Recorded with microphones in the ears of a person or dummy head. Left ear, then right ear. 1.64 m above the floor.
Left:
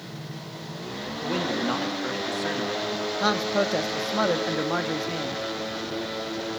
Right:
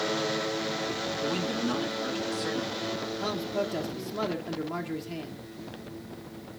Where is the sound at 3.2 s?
55° left (ahead or behind), 1.1 m.